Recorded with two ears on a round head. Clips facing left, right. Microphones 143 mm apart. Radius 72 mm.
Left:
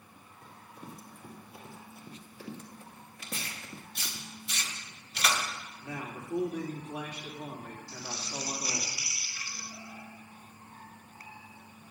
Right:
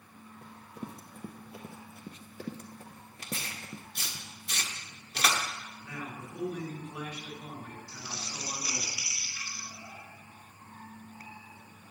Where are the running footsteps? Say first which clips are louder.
Right 5 dB; 60° right (ahead or behind), 2.5 m; by 4.2 s 5° right (ahead or behind), 1.2 m.